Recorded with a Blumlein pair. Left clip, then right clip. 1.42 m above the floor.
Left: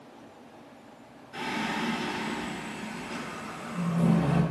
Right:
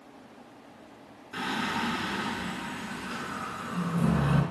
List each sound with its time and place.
1.3 s singing: 20° right, 5.5 m